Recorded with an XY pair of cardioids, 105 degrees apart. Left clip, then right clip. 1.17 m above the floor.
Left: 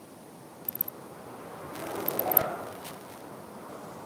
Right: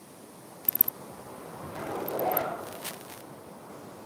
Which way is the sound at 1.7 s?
35° right.